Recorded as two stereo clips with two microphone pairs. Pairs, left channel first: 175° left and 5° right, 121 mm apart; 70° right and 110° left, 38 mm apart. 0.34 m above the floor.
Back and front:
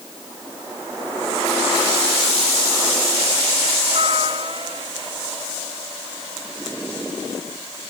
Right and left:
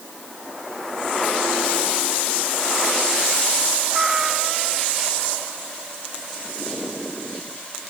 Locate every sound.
3.9 s a cat meowing: 35° left